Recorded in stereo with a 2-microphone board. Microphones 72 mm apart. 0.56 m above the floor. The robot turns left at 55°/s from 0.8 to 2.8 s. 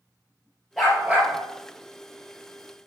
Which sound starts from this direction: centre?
A dog barking, at 0.8 s.